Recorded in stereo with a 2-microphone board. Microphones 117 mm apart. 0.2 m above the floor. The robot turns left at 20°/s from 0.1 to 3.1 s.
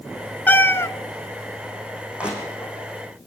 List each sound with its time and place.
0.5 s a cat meowing: 15° left (ahead or behind), 0.8 m; by 0.9 s 25° left (ahead or behind), 0.8 m
2.2 s crushing: 10° right (ahead or behind), 6.5 m; by 2.8 s centre (ahead or behind), 6.5 m